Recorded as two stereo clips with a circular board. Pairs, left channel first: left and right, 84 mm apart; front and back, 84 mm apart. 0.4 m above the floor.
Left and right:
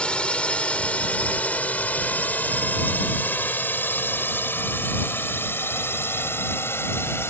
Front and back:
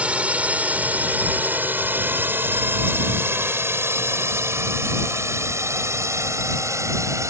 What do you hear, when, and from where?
0.0 s a drone: 140° left